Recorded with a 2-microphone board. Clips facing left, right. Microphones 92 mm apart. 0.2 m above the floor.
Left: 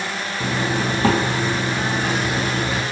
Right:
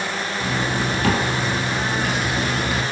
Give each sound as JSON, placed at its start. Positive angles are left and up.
{"t": 0.4, "sound": "a zipper", "side_deg": 30, "distance_m": 3.0}